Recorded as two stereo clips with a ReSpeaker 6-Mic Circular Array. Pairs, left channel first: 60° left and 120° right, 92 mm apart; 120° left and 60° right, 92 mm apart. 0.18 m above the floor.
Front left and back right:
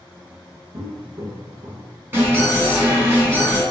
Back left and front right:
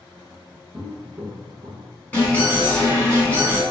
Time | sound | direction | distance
0.7 | footsteps | 110° right | 1.1 m
2.1 | an alarm | 175° right | 1.9 m